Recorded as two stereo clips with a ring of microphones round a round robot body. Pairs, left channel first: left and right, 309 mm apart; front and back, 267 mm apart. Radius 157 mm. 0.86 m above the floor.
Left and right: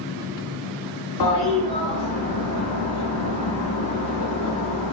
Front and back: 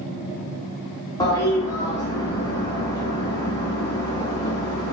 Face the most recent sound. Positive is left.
turn(degrees=75)